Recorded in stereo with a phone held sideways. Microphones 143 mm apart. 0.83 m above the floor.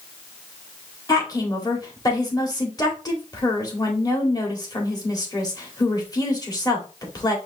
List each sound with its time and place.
1.1 s a woman speaking: 25° left (ahead or behind), 1.7 m